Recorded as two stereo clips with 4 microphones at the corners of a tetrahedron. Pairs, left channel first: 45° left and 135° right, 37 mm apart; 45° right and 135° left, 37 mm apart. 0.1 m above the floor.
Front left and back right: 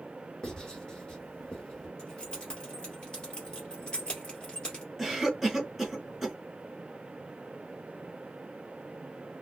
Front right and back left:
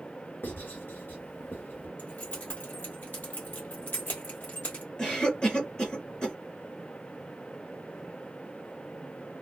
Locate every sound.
0.4 s writing: 20° right, 1.5 m
2.0 s keys jangling: 15° right, 1.6 m
5.0 s a cough: 50° right, 1.4 m